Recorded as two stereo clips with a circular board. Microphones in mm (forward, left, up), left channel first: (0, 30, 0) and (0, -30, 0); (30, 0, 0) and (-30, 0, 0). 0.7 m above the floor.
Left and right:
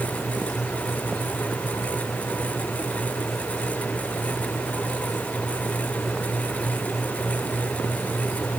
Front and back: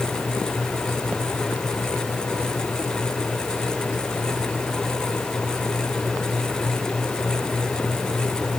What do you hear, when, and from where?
Only background noise.